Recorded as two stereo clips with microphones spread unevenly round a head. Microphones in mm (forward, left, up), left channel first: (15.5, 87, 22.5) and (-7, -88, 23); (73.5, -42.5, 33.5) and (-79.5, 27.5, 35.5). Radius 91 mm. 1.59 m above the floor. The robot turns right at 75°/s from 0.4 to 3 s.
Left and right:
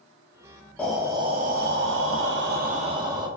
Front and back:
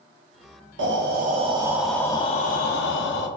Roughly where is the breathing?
Behind.